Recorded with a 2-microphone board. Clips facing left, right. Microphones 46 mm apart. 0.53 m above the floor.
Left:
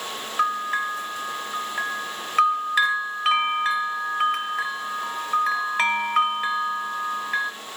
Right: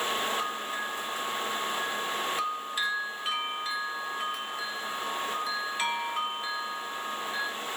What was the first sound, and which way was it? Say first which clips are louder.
A bell: left 9 dB; 75° left (ahead or behind).